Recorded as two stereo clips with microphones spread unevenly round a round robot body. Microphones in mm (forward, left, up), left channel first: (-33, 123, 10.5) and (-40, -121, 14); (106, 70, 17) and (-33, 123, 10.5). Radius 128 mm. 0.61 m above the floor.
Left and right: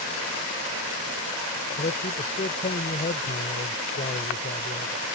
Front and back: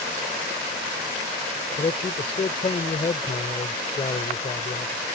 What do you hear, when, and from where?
1.8 s a man speaking: 25° left